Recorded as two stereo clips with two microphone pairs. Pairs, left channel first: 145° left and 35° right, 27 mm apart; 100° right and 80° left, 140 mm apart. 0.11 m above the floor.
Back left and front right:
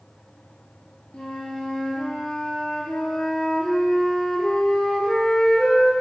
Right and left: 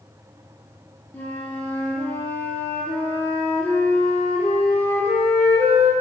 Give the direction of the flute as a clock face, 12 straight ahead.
6 o'clock.